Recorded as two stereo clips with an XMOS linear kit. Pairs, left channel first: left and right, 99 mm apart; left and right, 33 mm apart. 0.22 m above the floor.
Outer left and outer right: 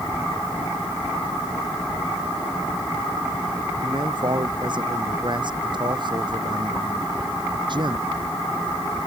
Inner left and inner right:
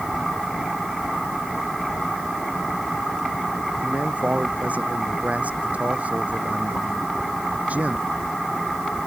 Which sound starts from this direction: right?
A man speaking, at 3.8 s.